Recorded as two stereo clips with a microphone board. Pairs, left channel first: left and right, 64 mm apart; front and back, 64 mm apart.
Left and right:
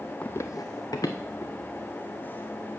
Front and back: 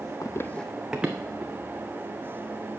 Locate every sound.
0.2 s running footsteps: 20° left, 0.5 m; by 2.2 s 120° left, 2.5 m